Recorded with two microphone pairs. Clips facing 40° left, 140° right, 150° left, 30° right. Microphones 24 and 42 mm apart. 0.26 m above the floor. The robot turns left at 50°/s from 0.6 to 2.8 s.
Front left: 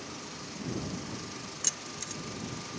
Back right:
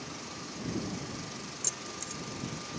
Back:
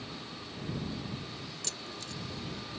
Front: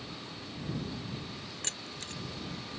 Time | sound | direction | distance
1.6 | keys jangling | straight ahead | ?